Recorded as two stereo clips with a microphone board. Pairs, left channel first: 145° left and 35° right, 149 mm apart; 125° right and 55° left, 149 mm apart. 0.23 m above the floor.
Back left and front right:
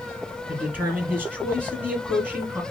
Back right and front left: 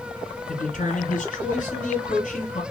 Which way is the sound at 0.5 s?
110° right.